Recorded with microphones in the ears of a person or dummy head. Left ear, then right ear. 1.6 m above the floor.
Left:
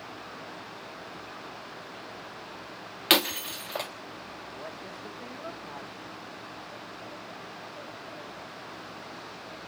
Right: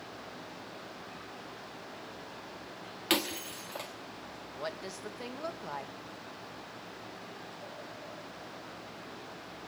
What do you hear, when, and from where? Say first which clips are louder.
3.1 s breaking glass: left 8 dB; 20° left (ahead or behind), 1.1 m
4.5 s a woman speaking: right 5 dB; 85° right, 2.5 m